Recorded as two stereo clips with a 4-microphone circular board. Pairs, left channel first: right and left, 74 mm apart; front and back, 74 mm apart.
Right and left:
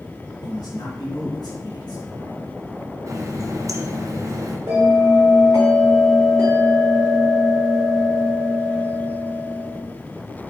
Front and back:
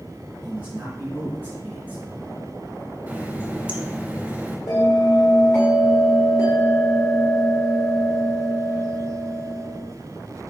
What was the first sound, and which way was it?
A man speaking, 115° right.